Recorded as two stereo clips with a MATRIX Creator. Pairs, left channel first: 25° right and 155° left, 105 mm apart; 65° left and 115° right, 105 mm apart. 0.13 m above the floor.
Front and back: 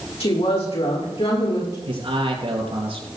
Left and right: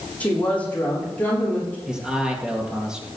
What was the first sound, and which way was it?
A woman speaking, 5° right.